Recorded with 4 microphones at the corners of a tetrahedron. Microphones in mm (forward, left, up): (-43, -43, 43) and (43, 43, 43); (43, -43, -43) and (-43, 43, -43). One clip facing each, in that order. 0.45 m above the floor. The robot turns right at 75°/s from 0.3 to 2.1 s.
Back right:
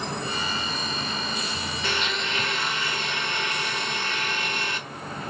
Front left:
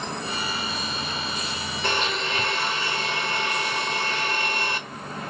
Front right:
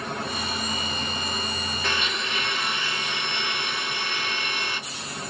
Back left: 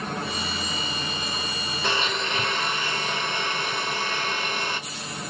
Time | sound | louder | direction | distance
1.8 | a blender | front left 4 dB, back left 4 dB | 75° left | 1.0 m